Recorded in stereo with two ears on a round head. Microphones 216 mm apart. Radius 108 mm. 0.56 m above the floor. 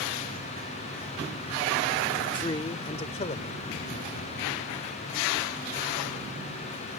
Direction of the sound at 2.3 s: 20° left (ahead or behind).